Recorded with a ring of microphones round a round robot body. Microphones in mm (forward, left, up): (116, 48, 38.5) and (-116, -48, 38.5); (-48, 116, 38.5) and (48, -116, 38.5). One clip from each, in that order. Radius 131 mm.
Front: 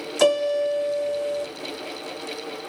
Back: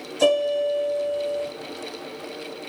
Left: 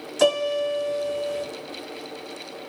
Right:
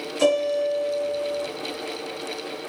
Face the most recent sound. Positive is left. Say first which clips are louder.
# even, even
turn(degrees=50)